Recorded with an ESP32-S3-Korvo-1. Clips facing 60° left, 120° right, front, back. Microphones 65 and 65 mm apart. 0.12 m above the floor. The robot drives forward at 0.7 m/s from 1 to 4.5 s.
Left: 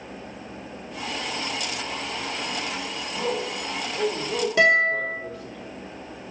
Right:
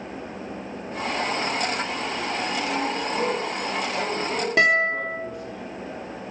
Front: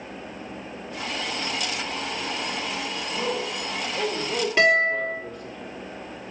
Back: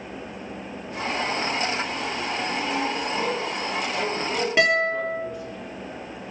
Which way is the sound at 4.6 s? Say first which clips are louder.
Left 1 dB, front 2 dB; 100° right.